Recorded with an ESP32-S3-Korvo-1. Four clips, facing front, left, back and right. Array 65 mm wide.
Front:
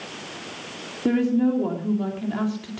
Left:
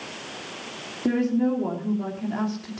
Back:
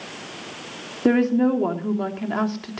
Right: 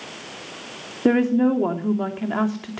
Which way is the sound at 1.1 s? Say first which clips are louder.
Right 5 dB, back 2 dB; 125° right.